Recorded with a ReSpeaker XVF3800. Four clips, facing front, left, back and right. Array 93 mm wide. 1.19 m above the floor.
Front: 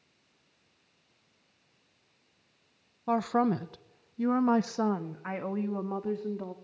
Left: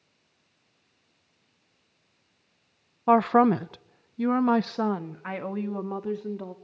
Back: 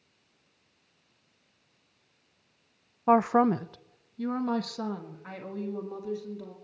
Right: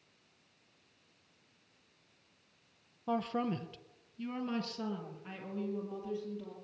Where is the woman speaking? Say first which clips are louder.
Left 15 dB, back 5 dB; 125° left, 0.5 m; by 6.5 s 55° left, 2 m.